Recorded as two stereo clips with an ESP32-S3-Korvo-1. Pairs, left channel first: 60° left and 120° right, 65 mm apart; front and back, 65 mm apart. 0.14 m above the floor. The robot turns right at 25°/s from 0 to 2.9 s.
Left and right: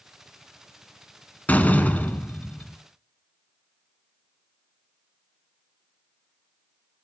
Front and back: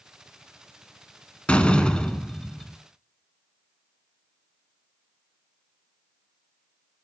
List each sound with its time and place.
1.5 s a door slam: 45° left, 0.8 m; by 2.8 s 75° left, 0.8 m